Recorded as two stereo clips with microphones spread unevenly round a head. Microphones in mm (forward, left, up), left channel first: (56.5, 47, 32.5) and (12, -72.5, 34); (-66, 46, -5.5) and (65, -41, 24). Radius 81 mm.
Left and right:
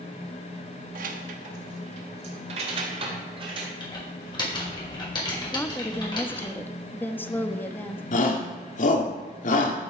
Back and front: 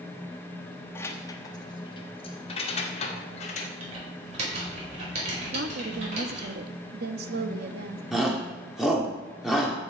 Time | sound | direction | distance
0.9 | keys jangling | 135° right | 1.1 m
3.8 | typing on a keyboard | 15° left | 5 m
5.5 | a woman speaking | 5° right | 1.1 m
8.1 | a shout | 55° left | 2.5 m